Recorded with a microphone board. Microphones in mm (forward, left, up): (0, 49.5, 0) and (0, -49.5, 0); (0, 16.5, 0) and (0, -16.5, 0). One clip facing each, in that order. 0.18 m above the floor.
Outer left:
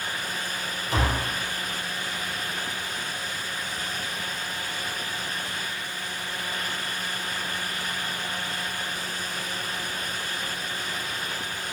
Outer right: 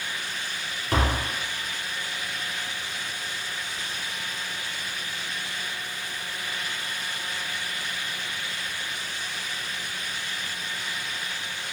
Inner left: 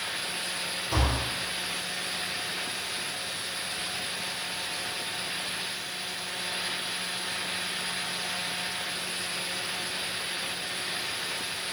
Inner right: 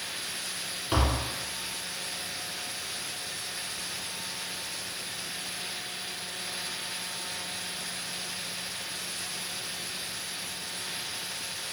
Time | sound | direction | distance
0.9 | tapping | 60° right (ahead or behind) | 0.6 m